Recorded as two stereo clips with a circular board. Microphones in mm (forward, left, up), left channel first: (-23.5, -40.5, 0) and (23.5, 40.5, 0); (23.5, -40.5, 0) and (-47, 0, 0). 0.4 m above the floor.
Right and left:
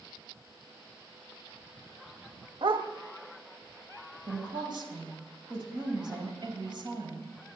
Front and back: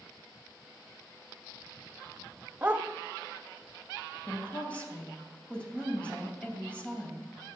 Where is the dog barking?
85° left, 0.6 m.